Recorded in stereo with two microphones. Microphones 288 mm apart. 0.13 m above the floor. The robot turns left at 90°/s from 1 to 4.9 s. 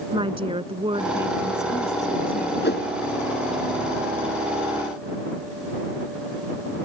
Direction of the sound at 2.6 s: 40° left (ahead or behind).